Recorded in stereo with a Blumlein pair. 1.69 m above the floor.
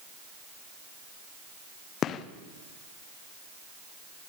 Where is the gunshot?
30° left, 1.1 m.